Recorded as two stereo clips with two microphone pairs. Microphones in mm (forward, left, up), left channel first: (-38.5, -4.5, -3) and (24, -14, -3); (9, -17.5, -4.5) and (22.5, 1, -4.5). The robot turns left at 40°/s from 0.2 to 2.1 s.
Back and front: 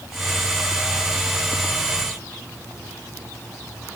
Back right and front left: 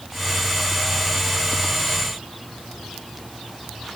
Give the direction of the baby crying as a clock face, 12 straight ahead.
No baby crying in this recording.